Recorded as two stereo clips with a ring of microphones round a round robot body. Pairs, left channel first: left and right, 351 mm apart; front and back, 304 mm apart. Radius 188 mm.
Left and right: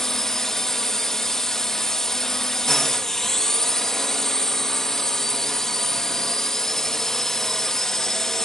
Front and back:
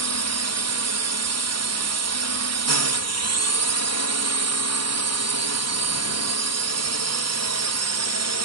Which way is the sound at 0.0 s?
Straight behind.